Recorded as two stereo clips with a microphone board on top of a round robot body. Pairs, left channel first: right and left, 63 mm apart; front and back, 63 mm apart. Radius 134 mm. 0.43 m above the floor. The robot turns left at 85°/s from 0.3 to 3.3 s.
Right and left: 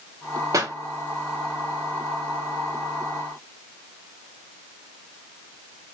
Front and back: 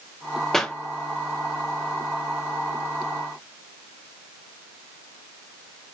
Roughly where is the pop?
Left.